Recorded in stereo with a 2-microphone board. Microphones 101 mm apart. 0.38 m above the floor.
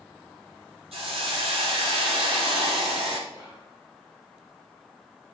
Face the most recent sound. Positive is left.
turn(degrees=-25)  # may be behind; listen again after turning